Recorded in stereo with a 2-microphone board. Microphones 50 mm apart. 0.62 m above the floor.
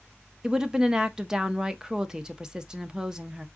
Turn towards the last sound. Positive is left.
turn(degrees=-15)  # may be behind; listen again after turning